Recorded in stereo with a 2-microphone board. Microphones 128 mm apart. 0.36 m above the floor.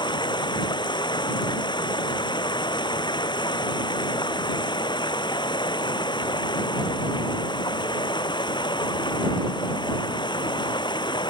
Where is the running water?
35° left (ahead or behind).